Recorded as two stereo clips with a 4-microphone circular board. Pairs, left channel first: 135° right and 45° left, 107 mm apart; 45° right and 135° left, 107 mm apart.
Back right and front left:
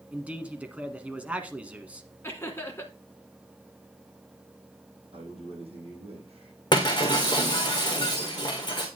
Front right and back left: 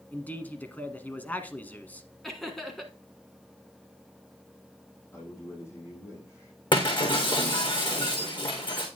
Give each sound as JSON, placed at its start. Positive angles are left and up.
{"t": 0.1, "sound": "a man speaking", "azimuth_deg": -5, "distance_m": 1.0}
{"t": 2.2, "sound": "laughter", "azimuth_deg": -130, "distance_m": 1.1}
{"t": 5.1, "sound": "a man speaking", "azimuth_deg": 20, "distance_m": 6.0}
{"t": 6.7, "sound": "breaking glass", "azimuth_deg": -85, "distance_m": 3.0}